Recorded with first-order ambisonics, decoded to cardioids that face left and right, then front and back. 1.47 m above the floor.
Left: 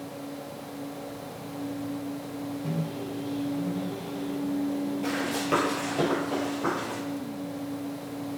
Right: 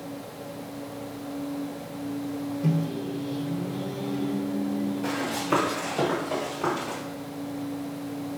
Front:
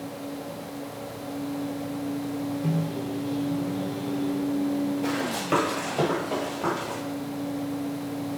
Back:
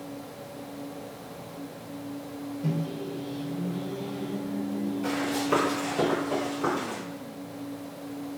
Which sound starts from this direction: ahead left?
Running footsteps, at 5.0 s.